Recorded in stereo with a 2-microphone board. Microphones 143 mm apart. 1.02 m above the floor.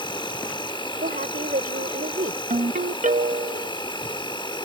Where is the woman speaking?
80° right.